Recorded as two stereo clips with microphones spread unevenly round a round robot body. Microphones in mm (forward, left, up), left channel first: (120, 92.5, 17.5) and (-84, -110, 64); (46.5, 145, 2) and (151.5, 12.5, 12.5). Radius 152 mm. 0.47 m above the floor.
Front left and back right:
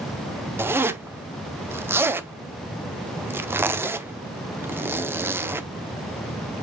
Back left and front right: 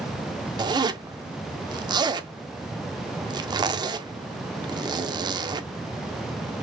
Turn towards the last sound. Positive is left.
turn(degrees=-40)